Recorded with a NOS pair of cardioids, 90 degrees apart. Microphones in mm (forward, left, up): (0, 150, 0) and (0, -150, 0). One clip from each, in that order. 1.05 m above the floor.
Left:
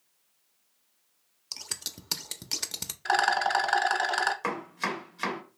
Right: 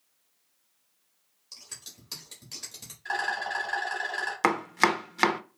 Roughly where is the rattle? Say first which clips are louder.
Left 5 dB; ahead left.